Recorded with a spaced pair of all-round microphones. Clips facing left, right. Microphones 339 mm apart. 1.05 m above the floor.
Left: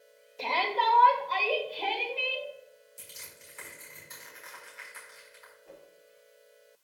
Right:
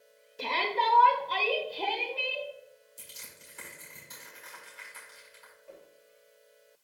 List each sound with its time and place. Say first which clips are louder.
0.4 s a shout: left 1 dB; 20° right (ahead or behind), 1.4 m; by 2.5 s 60° right (ahead or behind), 2.5 m
3.0 s crushing: left 1 dB; 45° right (ahead or behind), 5.5 m
5.7 s a whoosh: right 1 dB; 80° left, 4.5 m